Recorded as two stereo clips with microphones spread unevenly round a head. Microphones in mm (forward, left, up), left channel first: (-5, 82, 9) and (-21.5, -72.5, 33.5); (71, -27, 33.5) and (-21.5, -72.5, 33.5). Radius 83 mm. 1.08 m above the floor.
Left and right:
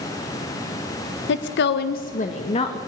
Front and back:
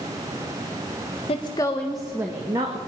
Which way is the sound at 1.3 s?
75° left.